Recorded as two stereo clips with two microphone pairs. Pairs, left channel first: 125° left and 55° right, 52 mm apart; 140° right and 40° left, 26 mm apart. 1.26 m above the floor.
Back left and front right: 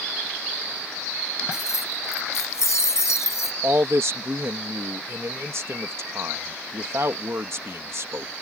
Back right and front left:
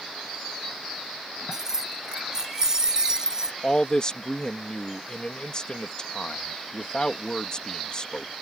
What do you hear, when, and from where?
1.5 s keys jangling: 110° left; by 3.5 s 105° left
3.6 s a man speaking: 85° right